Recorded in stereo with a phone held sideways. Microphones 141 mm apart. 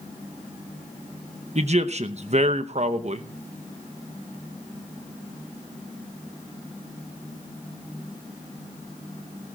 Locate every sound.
1.6 s a man speaking: 50° right (ahead or behind), 0.9 m